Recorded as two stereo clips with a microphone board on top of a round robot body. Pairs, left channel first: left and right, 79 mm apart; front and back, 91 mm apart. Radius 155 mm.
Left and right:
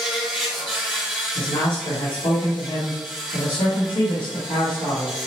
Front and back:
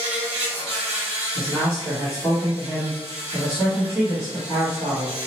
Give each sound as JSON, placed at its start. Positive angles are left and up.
{"t": 0.0, "sound": "an insect", "azimuth_deg": 175, "distance_m": 0.9}
{"t": 1.4, "sound": "a man speaking", "azimuth_deg": 100, "distance_m": 1.2}